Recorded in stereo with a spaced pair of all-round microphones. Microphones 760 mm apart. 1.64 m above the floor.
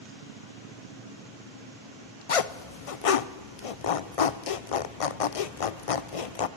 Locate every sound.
2.3 s a zipper: 50° left (ahead or behind), 0.7 m